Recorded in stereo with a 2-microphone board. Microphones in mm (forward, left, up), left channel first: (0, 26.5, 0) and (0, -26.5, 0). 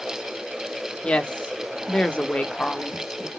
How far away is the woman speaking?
About 0.8 m.